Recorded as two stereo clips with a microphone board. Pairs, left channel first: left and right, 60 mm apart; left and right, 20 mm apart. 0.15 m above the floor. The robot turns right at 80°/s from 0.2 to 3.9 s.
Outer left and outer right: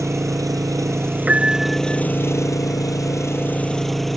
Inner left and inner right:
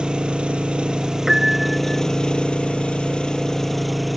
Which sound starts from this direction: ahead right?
A piano, at 1.3 s.